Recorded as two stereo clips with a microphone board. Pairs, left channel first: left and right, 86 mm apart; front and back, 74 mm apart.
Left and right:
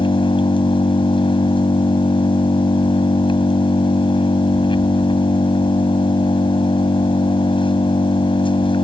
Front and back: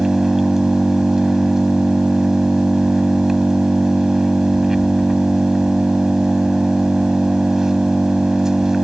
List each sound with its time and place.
0.0 s an engine running: 95° left